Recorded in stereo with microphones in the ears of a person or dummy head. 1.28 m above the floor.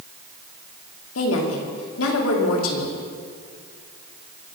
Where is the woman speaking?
85° left, 3 m.